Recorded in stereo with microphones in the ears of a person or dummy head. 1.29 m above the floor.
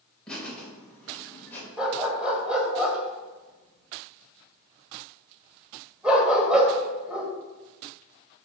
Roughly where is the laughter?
Centre.